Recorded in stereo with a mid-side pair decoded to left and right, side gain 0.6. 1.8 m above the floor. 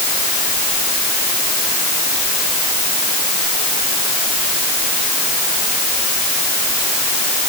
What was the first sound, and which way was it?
Only background noise.